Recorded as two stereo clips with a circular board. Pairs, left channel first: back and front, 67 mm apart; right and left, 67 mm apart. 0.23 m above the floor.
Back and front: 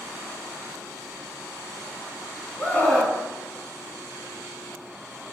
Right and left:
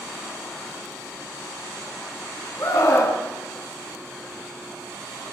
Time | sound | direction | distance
2.6 | a scream | 115° right | 2.5 m